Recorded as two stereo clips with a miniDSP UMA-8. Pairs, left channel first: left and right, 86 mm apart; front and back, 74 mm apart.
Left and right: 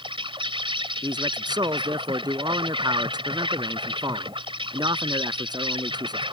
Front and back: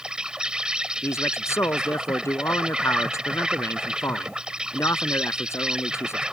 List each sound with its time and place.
0.0 s an insect: 100° right
1.0 s a man speaking: 55° right